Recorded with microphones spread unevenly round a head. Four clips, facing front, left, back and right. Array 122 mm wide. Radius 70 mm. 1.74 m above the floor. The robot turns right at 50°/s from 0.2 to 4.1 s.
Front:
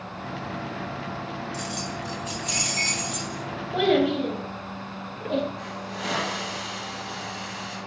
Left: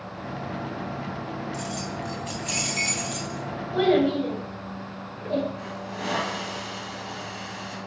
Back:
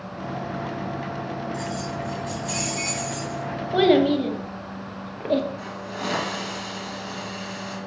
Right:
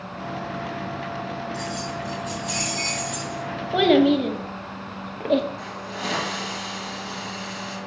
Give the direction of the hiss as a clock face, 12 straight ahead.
6 o'clock.